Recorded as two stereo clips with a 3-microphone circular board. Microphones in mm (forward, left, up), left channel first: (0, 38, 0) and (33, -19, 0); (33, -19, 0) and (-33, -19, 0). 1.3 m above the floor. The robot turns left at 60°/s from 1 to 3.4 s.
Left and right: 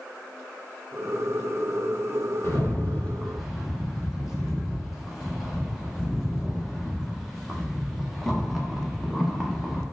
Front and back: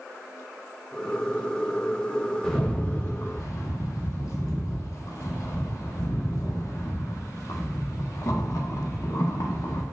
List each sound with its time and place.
2.4 s a rattle: 85° left, 0.7 m; by 9.8 s 25° left, 0.7 m